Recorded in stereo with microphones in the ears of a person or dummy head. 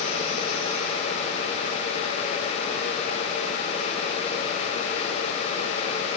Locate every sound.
Only background noise.